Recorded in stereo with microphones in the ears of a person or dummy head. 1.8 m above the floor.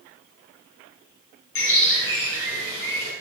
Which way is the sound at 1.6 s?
65° left (ahead or behind).